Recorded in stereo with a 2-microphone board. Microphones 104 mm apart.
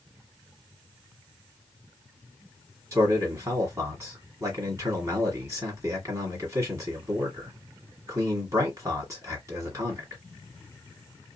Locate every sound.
2.9 s a man speaking: 30° right (ahead or behind), 1.5 m